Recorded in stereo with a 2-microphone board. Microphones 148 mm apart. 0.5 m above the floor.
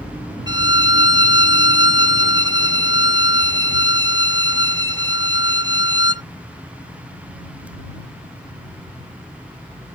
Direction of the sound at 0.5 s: 30° right (ahead or behind).